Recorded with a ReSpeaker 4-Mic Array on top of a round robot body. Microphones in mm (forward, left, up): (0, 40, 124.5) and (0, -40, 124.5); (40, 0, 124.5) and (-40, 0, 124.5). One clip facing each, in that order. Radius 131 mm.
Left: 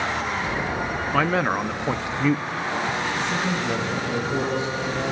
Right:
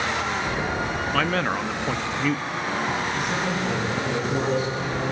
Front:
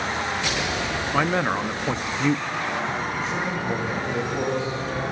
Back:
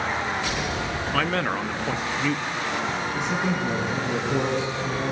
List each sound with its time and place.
1.1 s a man speaking: 40° left, 0.6 m
3.1 s a man speaking: 170° right, 7 m